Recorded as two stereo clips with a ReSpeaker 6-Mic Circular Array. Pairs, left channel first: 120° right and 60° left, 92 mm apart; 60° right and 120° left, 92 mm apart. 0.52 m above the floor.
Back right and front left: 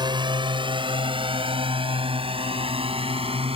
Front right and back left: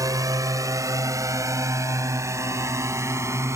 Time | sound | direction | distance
0.0 | a drone | 75° left | ?